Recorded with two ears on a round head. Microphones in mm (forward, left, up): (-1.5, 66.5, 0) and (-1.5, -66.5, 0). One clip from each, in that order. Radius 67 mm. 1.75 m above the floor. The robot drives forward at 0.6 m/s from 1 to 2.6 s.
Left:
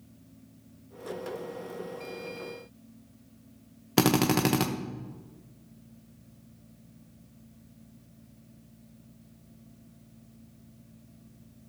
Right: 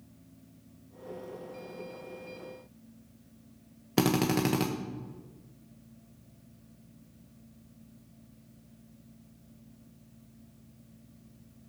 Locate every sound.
4.0 s a drill: 20° left (ahead or behind), 0.9 m